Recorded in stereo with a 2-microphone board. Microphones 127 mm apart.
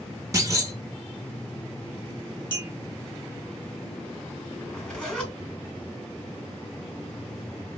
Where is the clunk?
25° right (ahead or behind), 0.6 m.